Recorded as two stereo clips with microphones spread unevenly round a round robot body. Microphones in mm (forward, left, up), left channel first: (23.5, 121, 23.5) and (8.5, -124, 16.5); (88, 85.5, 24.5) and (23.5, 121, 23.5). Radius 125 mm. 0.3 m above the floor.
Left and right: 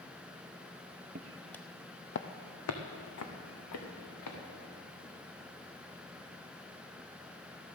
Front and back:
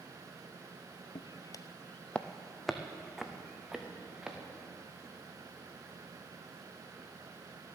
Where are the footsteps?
40° right, 0.6 m; by 4.4 s 70° left, 3 m.